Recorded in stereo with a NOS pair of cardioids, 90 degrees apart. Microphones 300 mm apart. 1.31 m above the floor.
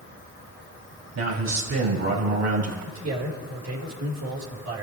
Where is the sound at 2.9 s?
65° right, 4.5 m.